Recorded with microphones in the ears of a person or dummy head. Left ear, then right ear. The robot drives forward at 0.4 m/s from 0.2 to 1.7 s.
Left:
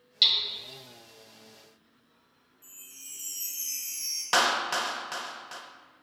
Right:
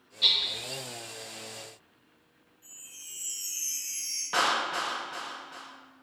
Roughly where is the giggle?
I don't hear a giggle.